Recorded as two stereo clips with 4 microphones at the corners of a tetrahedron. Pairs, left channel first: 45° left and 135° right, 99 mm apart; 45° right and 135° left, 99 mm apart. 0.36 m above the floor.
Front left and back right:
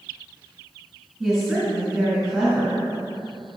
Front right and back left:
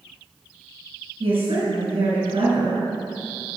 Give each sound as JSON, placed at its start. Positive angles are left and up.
{"t": 1.2, "sound": "a woman speaking", "azimuth_deg": 130, "distance_m": 3.0}